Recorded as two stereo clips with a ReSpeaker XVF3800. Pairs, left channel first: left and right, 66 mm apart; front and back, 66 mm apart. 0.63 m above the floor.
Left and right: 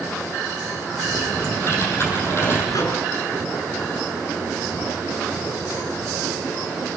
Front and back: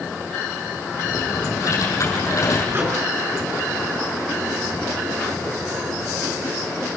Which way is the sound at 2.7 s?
125° left.